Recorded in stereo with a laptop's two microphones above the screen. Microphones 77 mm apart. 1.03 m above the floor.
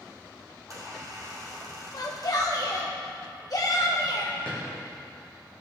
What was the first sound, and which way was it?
A squeak, 45° right (ahead or behind).